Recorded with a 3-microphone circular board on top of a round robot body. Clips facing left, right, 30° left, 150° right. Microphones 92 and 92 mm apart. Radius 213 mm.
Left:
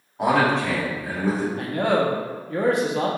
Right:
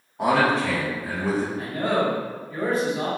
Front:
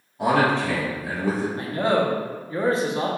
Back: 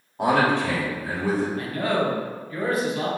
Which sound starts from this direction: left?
A man speaking, at 1.6 s.